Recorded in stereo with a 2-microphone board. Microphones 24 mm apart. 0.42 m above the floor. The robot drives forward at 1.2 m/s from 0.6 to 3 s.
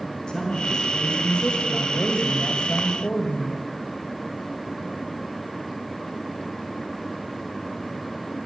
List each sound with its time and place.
0.3 s a woman speaking: 30° left (ahead or behind), 3.5 m; by 3.6 s 60° left (ahead or behind), 2.0 m